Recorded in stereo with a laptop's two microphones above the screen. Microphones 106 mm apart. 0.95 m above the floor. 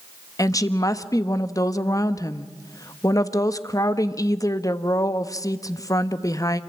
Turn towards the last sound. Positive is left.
turn(degrees=35)  # may be behind; listen again after turning